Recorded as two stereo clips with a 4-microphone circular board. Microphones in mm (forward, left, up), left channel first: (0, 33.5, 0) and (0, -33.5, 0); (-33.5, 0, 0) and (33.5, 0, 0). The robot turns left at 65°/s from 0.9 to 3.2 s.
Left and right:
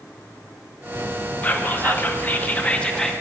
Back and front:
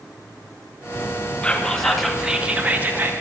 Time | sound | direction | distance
1.4 | whispering | 125° left | 0.5 m